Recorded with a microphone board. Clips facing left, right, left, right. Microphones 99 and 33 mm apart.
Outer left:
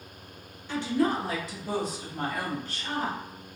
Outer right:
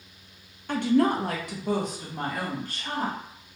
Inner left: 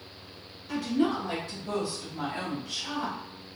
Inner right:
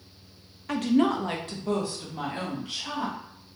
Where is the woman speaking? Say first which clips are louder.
Outer right 4 dB, inner right 4 dB; 55° right (ahead or behind), 0.5 m; by 3.2 s 45° right (ahead or behind), 1.8 m.